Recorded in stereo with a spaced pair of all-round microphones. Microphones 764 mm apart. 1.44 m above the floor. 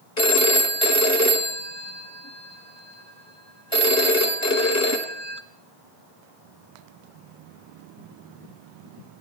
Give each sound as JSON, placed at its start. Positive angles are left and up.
{"t": 0.2, "sound": "a phone ringing", "side_deg": 20, "distance_m": 1.0}